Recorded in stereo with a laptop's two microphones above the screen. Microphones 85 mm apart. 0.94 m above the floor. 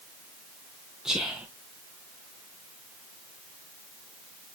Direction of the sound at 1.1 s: 5° right (ahead or behind).